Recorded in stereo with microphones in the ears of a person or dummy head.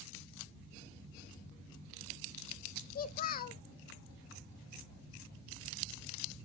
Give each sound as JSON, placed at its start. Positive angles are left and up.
{"t": 3.0, "sound": "a child speaking", "side_deg": 45, "distance_m": 0.7}